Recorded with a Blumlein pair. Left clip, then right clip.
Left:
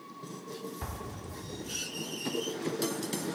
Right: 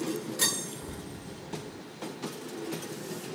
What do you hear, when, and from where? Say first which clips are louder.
0.8 s an explosion: left 1 dB; 40° left, 2.5 m